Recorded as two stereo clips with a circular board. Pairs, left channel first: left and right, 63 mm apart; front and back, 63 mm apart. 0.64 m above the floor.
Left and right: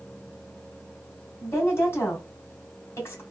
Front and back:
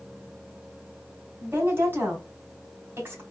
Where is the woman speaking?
130° left, 2 m.